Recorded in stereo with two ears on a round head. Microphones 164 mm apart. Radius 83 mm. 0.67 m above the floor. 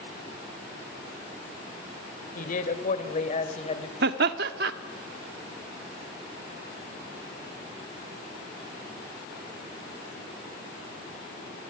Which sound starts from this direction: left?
A man speaking, at 2.4 s.